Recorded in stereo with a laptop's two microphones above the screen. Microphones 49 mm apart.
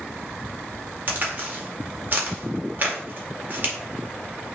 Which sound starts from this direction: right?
A crack, at 1.1 s.